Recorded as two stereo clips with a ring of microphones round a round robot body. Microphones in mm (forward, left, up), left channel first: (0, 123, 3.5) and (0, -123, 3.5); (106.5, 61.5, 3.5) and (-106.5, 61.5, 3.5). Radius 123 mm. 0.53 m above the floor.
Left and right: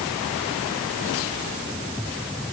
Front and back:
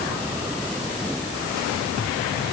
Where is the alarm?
I don't hear an alarm.